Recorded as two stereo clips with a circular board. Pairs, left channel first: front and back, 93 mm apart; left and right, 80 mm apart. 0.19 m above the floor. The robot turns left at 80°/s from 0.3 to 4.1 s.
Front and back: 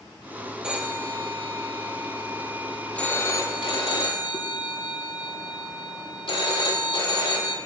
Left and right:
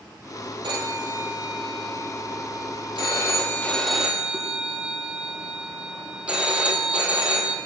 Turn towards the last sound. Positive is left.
turn(degrees=-15)